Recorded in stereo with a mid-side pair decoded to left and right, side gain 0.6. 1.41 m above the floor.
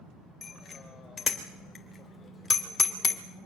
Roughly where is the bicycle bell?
Ahead.